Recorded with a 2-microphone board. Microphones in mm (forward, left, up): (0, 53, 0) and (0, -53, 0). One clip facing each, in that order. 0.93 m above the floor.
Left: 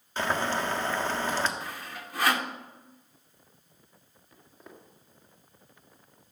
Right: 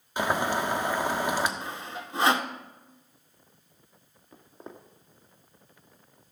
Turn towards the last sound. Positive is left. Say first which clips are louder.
# right 5 dB
turn(degrees=-30)  # may be behind; listen again after turning